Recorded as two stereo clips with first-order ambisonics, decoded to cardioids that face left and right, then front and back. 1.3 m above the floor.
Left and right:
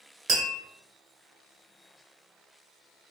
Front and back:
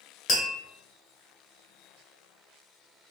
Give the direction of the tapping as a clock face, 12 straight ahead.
1 o'clock.